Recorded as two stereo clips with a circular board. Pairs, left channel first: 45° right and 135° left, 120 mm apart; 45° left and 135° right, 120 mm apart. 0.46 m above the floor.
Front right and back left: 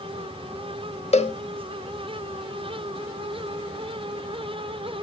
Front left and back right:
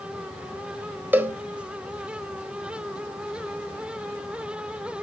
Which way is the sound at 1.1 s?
65° right.